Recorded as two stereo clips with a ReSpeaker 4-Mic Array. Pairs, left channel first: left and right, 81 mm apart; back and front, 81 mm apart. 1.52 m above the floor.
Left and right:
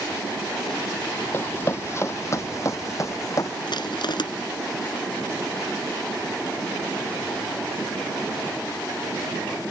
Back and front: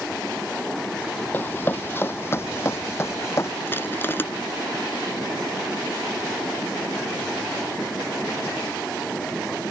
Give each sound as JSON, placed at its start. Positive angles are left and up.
{"t": 1.3, "sound": "running footsteps", "azimuth_deg": 130}
{"t": 3.7, "sound": "crushing", "azimuth_deg": 115}